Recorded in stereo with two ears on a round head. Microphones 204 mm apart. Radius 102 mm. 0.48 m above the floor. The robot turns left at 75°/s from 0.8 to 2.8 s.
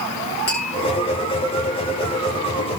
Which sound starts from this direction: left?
Tapping, at 0.5 s.